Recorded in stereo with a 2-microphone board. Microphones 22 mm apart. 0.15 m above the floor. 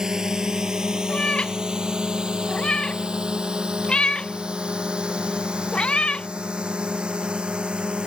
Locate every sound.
0.0 s a drone: 25° right (ahead or behind); by 8.1 s 40° right (ahead or behind)
1.1 s a cat meowing: 40° left (ahead or behind)